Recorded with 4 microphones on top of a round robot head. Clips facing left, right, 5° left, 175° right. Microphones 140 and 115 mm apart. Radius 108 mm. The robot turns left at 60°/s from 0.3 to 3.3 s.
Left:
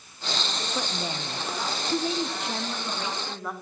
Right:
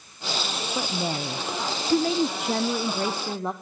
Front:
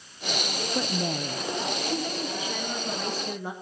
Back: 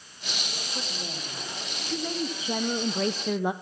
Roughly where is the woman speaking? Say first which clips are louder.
Right 5 dB, front 10 dB; ahead.